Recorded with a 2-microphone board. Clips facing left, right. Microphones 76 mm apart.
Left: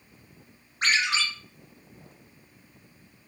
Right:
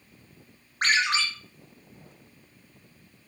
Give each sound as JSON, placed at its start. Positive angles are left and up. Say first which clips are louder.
{"t": 0.8, "sound": "a ringtone", "louder": "right 1 dB", "side_deg": -55, "distance_m": 1.6}